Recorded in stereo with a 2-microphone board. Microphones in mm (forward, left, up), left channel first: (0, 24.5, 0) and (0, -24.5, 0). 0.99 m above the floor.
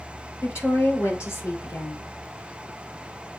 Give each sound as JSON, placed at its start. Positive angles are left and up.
{"t": 0.4, "sound": "a woman speaking", "side_deg": 75, "distance_m": 2.5}